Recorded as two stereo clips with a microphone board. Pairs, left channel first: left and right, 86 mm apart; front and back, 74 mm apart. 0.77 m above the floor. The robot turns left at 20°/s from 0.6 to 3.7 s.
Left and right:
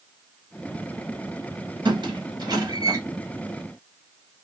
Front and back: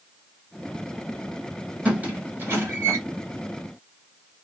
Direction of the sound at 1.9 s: 110° right.